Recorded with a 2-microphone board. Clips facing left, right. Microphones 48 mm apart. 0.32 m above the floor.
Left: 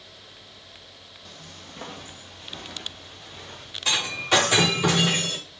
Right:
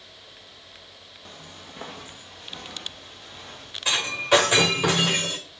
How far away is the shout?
No shout in this recording.